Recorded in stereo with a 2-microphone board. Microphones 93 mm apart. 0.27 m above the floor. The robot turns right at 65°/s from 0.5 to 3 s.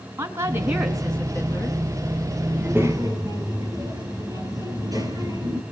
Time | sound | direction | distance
0.2 | a woman speaking | 30° right | 4 m
2.5 | a child speaking | 10° right (ahead or behind) | 5.5 m